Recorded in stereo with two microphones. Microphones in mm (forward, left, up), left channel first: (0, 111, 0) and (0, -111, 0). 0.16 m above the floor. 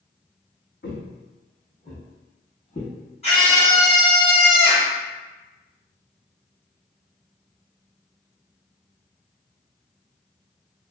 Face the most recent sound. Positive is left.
turn(degrees=30)  # may be behind; listen again after turning